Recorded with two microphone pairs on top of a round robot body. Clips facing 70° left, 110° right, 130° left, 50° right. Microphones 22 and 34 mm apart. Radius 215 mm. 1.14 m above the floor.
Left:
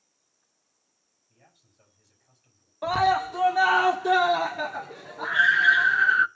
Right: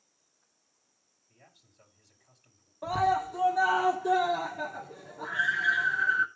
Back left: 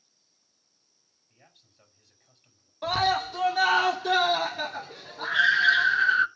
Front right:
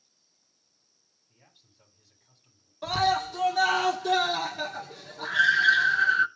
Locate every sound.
1.3 s a man speaking: straight behind, 8.5 m
2.8 s a scream: 55° left, 1.1 m